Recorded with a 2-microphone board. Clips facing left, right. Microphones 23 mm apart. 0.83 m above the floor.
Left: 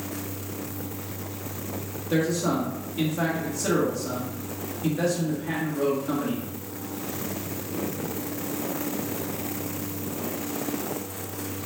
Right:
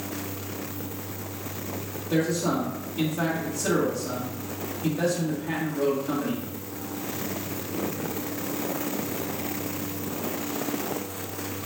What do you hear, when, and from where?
2.1 s a man speaking: 30° left (ahead or behind), 1.8 m